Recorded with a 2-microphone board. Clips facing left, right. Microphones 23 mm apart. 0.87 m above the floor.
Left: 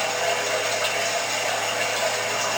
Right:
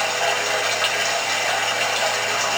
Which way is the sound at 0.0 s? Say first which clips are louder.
Right 3 dB; 75° right (ahead or behind).